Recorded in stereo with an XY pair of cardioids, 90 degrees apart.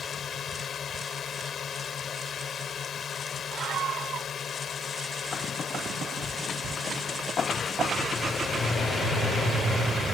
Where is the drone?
60° left.